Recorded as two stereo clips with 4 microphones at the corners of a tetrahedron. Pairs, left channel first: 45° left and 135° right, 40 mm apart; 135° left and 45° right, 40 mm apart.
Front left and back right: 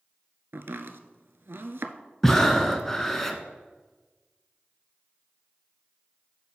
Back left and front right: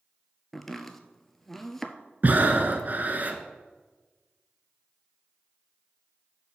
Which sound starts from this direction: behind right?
Chopping, at 0.5 s.